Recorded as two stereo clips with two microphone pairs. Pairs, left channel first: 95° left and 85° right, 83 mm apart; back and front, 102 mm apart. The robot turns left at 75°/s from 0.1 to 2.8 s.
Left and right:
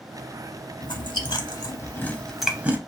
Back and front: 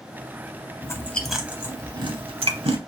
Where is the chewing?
120° left, 0.6 m; by 2.8 s 25° right, 0.6 m.